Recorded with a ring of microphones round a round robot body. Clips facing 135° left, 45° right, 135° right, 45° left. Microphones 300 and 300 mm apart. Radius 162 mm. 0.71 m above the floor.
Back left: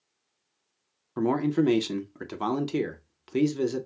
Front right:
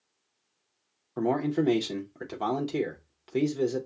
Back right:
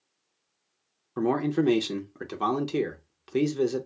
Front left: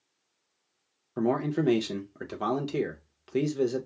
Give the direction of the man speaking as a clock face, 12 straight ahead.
7 o'clock.